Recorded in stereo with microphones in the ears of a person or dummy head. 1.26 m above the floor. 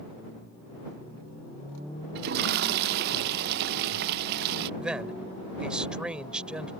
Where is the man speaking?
5° right (ahead or behind).